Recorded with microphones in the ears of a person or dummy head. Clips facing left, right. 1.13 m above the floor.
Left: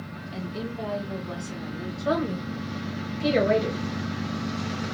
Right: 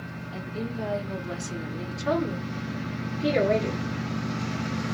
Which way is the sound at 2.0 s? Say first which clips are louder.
Even; 55° left (ahead or behind).